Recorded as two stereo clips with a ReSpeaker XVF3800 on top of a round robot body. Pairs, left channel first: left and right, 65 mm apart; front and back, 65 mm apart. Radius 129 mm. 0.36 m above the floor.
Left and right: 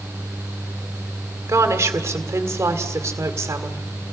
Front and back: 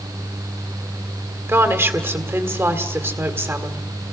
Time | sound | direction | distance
1.5 | a woman speaking | 135° right | 2 m